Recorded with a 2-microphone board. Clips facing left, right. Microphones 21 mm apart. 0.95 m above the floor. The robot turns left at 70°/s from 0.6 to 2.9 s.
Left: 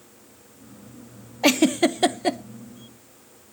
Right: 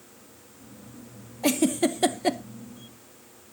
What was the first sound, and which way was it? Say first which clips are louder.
A giggle: left 5 dB; 45° left (ahead or behind).